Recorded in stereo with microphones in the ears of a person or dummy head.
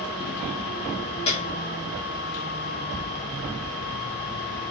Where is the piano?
25° left (ahead or behind), 1.4 m.